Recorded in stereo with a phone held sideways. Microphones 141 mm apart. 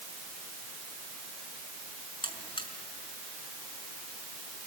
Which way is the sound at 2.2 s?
35° left (ahead or behind).